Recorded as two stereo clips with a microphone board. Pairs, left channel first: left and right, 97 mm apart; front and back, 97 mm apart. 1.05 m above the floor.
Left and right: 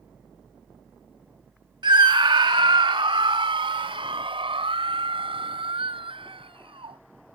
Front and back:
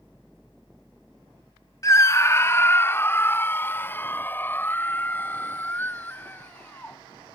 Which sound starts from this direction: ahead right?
A scream, at 1.8 s.